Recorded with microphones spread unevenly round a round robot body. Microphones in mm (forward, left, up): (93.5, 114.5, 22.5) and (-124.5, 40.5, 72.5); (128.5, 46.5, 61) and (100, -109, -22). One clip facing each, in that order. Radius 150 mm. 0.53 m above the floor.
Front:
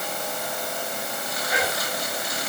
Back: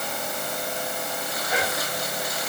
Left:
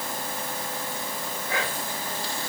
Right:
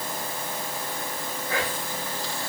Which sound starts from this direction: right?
Whispering, at 1.5 s.